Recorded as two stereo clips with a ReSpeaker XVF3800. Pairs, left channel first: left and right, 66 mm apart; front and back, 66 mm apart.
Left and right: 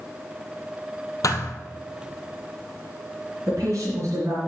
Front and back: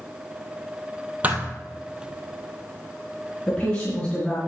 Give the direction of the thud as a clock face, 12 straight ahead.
8 o'clock.